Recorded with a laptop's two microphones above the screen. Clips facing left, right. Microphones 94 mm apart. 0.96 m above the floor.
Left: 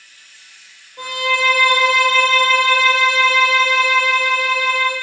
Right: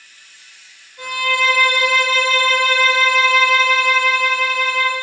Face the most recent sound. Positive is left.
turn(degrees=65)  # may be behind; listen again after turning